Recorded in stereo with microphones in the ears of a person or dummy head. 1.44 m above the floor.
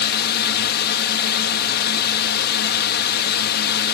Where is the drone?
50° left (ahead or behind).